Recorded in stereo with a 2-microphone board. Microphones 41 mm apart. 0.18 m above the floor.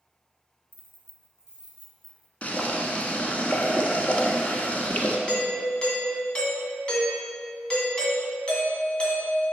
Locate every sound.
0.7 s keys jangling: 40° right (ahead or behind), 1.4 m; by 2.3 s 5° left (ahead or behind), 1.6 m
2.4 s boiling: 35° left (ahead or behind), 0.9 m
5.3 s a doorbell: 25° left (ahead or behind), 1.7 m